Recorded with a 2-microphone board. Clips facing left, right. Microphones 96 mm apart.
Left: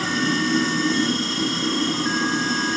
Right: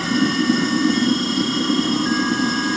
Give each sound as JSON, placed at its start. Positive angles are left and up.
{"t": 0.0, "sound": "running water", "side_deg": -75, "distance_m": 8.5}